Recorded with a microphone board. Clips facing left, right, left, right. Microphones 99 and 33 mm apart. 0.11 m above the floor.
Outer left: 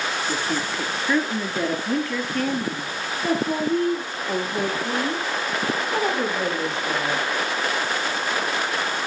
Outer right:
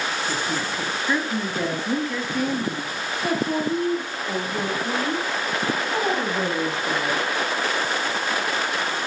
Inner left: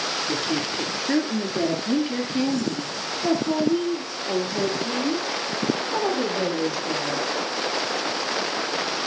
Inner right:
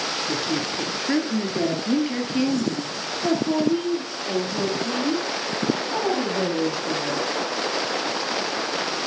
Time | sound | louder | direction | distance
0.3 | a woman speaking | outer left 1 dB, even | centre (ahead or behind) | 1.7 m